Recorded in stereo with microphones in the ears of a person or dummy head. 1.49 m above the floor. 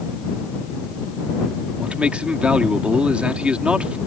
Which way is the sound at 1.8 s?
5° right (ahead or behind).